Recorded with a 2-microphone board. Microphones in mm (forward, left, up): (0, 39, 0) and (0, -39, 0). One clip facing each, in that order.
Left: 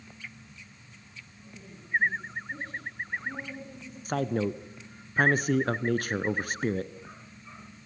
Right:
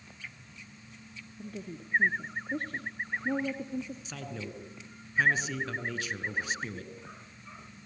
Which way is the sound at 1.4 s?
50° right (ahead or behind).